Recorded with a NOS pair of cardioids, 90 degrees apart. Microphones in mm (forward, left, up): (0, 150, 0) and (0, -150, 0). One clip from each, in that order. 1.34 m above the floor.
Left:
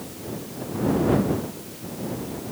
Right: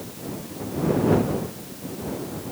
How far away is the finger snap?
I don't hear a finger snap.